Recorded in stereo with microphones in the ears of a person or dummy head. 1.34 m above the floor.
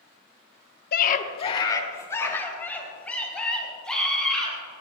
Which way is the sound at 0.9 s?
55° left (ahead or behind).